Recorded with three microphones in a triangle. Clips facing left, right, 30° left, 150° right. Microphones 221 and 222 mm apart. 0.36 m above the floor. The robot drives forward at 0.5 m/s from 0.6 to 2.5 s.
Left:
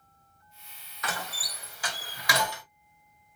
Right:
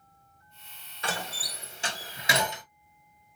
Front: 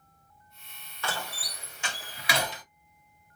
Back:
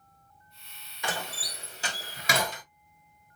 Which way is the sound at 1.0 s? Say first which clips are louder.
Right 2 dB, back 1 dB; 95° right.